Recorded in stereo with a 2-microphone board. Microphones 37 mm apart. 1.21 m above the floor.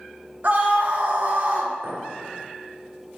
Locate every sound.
0.4 s a scream: 45° right (ahead or behind), 1.0 m
1.8 s a clink: 80° right, 2 m